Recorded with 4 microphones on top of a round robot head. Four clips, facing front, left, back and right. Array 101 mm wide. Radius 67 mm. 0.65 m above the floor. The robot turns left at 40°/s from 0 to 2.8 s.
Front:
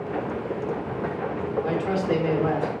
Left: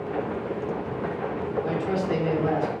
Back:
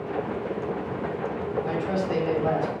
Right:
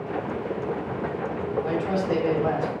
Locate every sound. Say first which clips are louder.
1.6 s a man speaking: right 1 dB, front 4 dB; 10° left, 3 m; by 2.7 s 30° right, 3 m